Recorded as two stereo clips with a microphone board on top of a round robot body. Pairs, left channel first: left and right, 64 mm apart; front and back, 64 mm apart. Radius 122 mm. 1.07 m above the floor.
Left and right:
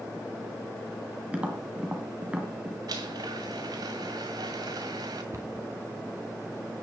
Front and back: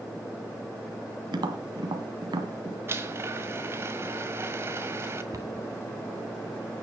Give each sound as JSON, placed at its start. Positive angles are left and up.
{"t": 1.3, "sound": "tapping", "azimuth_deg": -165, "distance_m": 2.0}
{"t": 2.9, "sound": "a blender", "azimuth_deg": -130, "distance_m": 1.6}
{"t": 5.3, "sound": "a cupboard door", "azimuth_deg": -140, "distance_m": 3.0}